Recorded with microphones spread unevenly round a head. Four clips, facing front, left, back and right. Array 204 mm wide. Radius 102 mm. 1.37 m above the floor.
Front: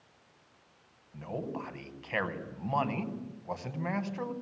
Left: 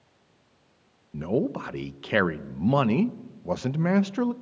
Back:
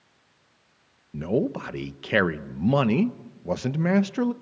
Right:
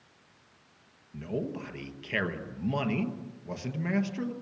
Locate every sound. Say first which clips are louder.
1.1 s a man speaking: left 8 dB, back 12 dB; 140° left, 1.0 m